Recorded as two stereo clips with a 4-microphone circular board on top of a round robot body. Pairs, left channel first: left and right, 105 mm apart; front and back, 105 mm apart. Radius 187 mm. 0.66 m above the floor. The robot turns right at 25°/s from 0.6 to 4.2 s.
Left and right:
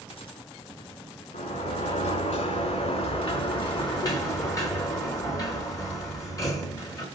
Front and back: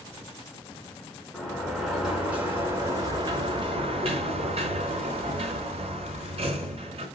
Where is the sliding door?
80° left, 3.5 m; by 7.1 s 150° left, 3.5 m.